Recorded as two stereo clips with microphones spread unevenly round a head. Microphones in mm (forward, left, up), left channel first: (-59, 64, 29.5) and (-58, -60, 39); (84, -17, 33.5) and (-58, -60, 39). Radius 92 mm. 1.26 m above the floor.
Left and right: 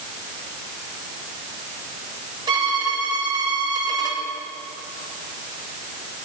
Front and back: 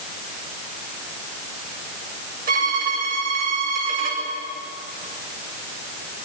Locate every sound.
2.5 s a violin: 145° right, 7 m